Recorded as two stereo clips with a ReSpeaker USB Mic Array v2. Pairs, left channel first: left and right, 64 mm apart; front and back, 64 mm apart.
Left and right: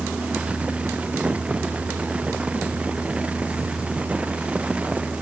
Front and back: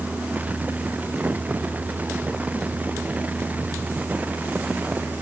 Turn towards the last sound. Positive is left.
No sound to turn to.